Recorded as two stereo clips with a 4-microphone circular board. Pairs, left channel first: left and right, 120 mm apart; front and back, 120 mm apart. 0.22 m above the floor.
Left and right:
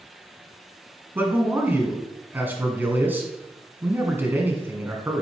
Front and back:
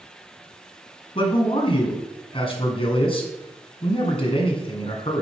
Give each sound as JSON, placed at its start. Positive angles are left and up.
{"t": 1.1, "sound": "a man speaking", "azimuth_deg": -20, "distance_m": 1.8}